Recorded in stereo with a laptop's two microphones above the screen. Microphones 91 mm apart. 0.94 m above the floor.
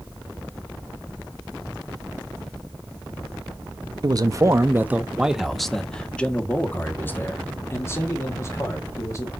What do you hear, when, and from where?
4.0 s a man speaking: 50° right (ahead or behind), 0.9 m; by 9.3 s 35° left (ahead or behind), 3 m